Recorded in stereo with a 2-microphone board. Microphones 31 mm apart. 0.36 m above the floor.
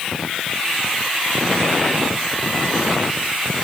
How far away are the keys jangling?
No keys jangling in this recording.